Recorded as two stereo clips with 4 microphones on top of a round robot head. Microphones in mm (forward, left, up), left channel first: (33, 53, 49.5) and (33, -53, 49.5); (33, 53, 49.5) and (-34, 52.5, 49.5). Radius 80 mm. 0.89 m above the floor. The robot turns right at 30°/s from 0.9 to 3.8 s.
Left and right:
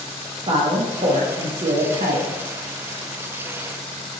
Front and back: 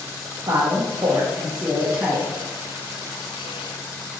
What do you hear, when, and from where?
0.5 s a woman speaking: 130° right, 0.6 m; by 2.3 s 90° right, 0.6 m